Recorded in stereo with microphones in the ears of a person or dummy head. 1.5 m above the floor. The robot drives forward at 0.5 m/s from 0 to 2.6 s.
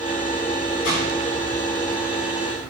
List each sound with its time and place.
0.8 s a gunshot: 60° left (ahead or behind), 5.5 m; by 1.1 s 55° left (ahead or behind), 5.5 m